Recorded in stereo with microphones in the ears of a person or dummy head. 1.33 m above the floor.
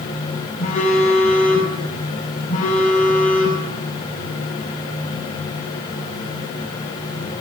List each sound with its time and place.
0.6 s a phone buzzing: 45° left (ahead or behind), 8.5 m